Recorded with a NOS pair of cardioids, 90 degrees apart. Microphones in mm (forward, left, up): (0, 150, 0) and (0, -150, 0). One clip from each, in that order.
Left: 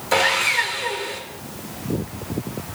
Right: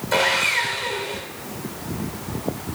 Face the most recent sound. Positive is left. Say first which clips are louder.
# left 1 dB
turn(degrees=35)